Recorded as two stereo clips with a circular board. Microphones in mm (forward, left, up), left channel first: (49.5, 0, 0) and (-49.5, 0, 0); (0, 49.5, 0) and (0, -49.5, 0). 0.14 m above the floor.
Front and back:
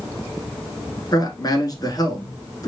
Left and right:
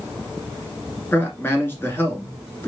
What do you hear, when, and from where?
1.1 s a man speaking: 30° left, 1.6 m